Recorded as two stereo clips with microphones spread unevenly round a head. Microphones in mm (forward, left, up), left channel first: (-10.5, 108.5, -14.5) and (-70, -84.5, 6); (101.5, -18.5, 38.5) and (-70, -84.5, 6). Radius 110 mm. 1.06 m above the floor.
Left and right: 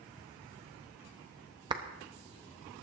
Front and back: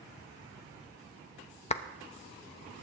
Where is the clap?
35° right, 0.7 m.